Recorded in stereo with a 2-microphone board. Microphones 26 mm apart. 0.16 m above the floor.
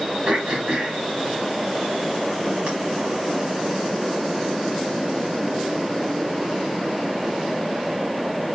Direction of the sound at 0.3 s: 45° right (ahead or behind).